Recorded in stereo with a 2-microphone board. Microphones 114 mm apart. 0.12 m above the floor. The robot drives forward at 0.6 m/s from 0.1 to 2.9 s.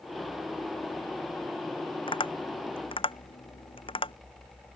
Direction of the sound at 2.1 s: 50° left (ahead or behind).